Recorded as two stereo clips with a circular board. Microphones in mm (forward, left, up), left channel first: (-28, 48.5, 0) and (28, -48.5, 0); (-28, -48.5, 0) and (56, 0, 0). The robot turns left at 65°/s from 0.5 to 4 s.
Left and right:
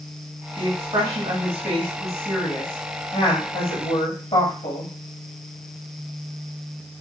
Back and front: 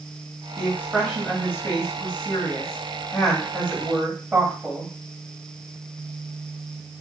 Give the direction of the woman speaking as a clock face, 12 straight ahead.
1 o'clock.